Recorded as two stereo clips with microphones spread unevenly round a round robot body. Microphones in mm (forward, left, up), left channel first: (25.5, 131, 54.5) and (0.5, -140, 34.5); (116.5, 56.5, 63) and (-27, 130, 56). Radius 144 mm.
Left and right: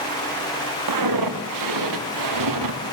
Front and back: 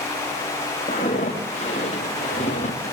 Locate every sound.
0.9 s footsteps: 90° right, 5 m; by 2.8 s 85° right, 4 m